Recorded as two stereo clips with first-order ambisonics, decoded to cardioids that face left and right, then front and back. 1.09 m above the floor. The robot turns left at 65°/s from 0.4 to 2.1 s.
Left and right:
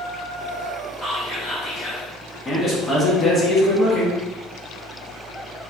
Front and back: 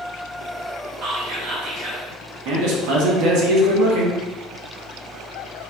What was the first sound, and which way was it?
Whispering, 160° right.